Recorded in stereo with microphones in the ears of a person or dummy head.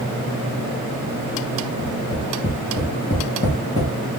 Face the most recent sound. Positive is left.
turn(degrees=35)  # may be behind; listen again after turning